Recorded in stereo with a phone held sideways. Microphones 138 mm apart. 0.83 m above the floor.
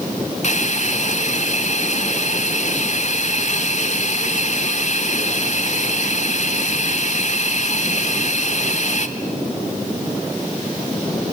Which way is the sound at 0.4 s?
55° left (ahead or behind).